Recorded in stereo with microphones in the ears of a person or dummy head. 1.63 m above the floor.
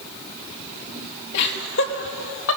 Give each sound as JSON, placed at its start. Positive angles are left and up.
{"t": 1.3, "sound": "laughter", "side_deg": 65, "distance_m": 3.0}